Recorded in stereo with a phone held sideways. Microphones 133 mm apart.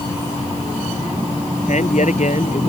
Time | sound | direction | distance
1.7 | a man speaking | 65° left (ahead or behind) | ?